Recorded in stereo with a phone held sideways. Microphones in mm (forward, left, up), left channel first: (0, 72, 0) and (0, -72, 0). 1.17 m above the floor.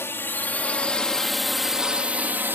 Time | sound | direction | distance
0.0 | a drone | 15° left (ahead or behind) | ?